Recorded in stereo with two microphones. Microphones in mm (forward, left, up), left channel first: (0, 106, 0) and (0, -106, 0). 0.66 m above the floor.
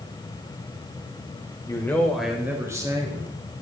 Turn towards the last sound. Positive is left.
turn(degrees=-25)  # may be behind; listen again after turning